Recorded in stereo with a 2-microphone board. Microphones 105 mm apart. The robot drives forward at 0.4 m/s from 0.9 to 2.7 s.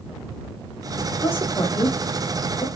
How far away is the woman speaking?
About 0.9 m.